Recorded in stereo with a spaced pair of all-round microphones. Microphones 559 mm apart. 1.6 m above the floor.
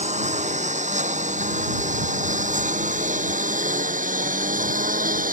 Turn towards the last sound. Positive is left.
turn(degrees=-15)  # may be behind; listen again after turning